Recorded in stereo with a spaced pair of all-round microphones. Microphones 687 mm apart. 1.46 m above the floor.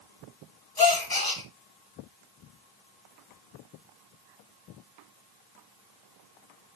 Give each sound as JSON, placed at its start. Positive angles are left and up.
{"t": 0.8, "sound": "a gasp", "side_deg": 30, "distance_m": 1.5}